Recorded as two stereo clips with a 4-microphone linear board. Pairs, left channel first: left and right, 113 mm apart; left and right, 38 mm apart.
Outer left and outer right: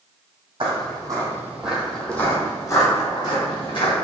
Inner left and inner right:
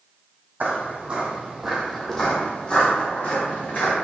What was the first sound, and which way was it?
Footsteps, 50° right (ahead or behind).